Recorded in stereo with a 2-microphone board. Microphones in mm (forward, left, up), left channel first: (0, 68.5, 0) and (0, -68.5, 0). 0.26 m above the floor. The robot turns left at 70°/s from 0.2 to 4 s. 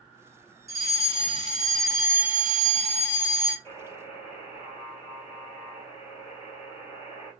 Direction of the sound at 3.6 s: 20° left (ahead or behind).